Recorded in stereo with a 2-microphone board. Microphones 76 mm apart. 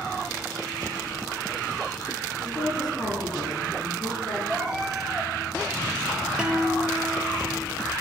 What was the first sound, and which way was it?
A woman speaking, 50° left (ahead or behind).